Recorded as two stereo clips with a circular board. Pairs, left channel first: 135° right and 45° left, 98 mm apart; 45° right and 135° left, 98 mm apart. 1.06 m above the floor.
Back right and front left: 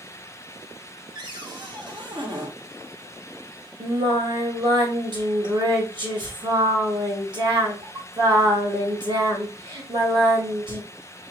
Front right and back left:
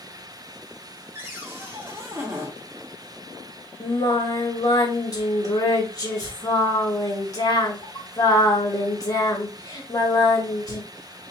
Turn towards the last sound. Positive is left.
turn(degrees=5)